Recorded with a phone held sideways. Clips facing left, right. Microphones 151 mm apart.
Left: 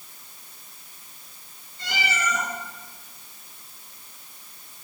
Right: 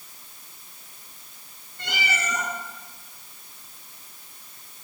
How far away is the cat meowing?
About 4 m.